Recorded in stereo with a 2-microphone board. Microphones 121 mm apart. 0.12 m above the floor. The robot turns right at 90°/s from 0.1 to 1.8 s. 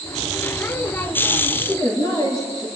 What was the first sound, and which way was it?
A woman speaking, 25° left (ahead or behind).